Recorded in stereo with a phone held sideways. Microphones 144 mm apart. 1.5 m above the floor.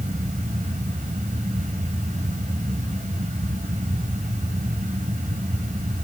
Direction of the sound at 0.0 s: 60° right (ahead or behind).